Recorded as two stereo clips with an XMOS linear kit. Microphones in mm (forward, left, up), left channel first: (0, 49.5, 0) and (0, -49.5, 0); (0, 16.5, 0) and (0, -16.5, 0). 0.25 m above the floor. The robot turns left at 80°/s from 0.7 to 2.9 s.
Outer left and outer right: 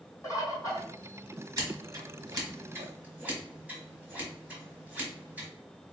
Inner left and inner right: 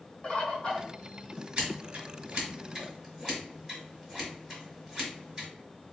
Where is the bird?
35° left (ahead or behind), 1.7 m; by 0.9 s 20° left (ahead or behind), 1.7 m.